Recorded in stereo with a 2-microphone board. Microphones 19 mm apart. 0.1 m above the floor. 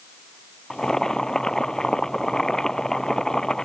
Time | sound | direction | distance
0.7 | boiling | 30° left (ahead or behind) | ?